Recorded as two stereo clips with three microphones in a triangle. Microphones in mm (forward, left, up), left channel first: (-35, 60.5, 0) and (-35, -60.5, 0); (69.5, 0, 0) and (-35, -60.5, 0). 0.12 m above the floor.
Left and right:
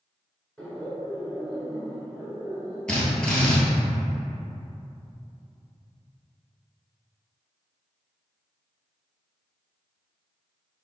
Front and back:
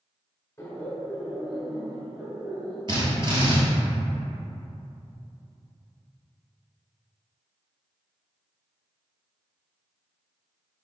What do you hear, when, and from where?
0.6 s laughter: 25° left, 1.1 m; by 2.8 s 135° right, 1.4 m
2.9 s a drill: 175° left, 1.1 m